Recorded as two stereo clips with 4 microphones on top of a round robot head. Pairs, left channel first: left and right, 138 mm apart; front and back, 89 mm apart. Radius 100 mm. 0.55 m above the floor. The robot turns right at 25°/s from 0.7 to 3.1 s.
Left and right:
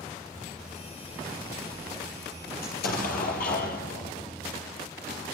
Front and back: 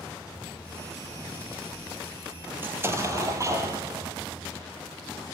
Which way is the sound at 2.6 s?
115° left.